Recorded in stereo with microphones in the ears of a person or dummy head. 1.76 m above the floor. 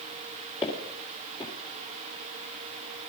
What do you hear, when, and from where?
0.6 s footsteps: 25° left (ahead or behind), 2.5 m